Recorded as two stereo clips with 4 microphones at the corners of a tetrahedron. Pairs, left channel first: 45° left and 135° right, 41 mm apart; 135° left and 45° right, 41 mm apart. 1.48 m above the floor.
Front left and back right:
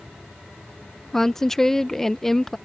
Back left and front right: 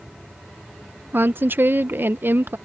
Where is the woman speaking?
35° right.